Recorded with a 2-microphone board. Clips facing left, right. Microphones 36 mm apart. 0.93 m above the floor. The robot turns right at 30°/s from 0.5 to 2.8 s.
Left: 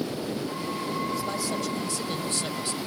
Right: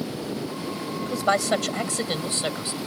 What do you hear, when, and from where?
1.0 s a man speaking: 85° right; by 2.8 s 35° right